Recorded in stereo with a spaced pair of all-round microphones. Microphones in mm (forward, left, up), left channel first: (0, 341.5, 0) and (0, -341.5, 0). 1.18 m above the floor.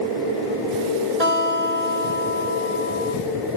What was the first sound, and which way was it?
A guitar, 65° right (ahead or behind).